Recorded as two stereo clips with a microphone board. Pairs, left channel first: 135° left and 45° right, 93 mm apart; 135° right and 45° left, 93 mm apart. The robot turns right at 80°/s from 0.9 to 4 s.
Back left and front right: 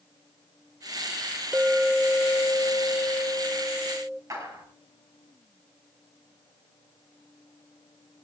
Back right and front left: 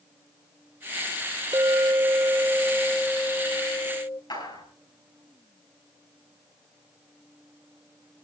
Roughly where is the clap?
Right.